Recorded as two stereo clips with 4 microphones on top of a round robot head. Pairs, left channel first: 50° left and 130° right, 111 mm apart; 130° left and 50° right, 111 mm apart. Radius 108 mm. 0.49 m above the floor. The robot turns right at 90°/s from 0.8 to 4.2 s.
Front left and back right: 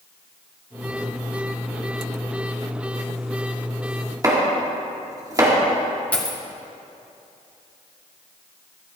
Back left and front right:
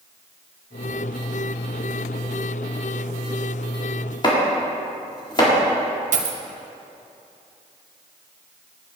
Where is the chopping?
175° left, 2.5 m.